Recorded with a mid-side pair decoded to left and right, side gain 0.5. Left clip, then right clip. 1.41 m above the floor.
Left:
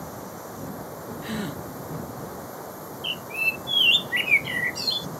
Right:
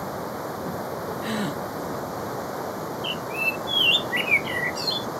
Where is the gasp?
25° right.